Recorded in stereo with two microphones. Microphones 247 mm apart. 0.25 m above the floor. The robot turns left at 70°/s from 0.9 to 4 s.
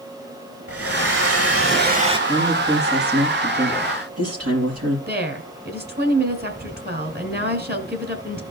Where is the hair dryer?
70° right, 1.0 m; by 2.2 s 160° right, 1.0 m.